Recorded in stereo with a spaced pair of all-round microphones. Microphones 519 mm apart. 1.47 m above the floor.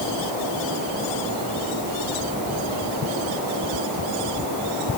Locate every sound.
Only background noise.